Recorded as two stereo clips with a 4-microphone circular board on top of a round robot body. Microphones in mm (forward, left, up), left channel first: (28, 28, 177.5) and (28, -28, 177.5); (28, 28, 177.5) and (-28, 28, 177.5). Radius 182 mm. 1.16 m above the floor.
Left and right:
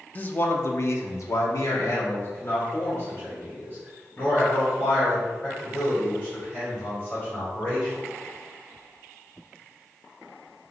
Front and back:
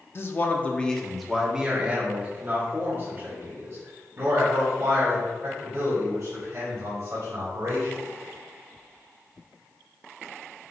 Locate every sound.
0.1 s a man speaking: 35° left, 0.8 m; by 8.0 s 145° left, 4 m